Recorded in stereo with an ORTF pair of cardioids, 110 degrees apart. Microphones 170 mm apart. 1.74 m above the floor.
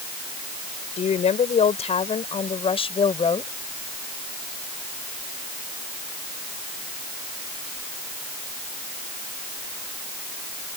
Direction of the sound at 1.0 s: 45° left.